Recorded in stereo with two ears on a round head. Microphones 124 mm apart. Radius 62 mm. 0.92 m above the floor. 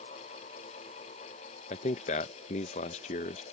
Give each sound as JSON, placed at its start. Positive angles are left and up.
{"t": 1.7, "sound": "a man speaking", "side_deg": 50}